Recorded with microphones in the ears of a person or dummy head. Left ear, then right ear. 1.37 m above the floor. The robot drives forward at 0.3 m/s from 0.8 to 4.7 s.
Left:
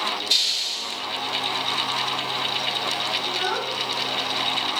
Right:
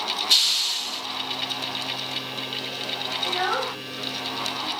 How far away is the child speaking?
About 2 m.